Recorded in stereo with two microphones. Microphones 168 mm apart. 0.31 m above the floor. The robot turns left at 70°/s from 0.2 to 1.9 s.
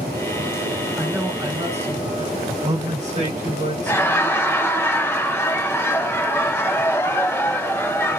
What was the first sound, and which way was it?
A man speaking, straight ahead.